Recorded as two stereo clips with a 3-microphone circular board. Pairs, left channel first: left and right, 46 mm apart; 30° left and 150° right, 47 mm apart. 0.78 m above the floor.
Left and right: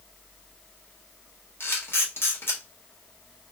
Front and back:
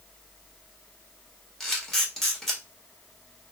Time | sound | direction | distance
1.6 | a camera shutter | 115° left | 1.4 m